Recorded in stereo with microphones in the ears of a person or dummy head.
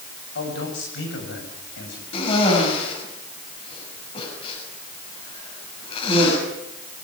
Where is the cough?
35° left (ahead or behind), 7.5 m.